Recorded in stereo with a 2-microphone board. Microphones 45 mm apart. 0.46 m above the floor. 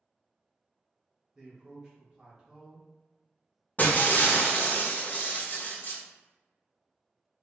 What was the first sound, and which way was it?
A man speaking, 15° right (ahead or behind).